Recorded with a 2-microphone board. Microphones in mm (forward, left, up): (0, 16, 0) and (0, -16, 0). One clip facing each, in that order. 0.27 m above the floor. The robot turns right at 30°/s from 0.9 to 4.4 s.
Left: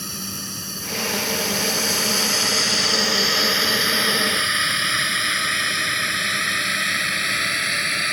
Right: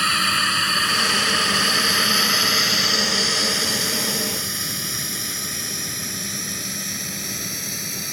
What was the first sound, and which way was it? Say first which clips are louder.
A drone: right 13 dB; 60° right (ahead or behind).